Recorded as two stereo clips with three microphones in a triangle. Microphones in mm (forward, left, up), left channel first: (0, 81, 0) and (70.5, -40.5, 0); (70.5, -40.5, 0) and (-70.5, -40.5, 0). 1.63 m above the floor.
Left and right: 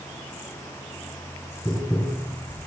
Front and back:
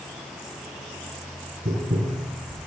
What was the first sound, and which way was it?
Tapping, 175° right.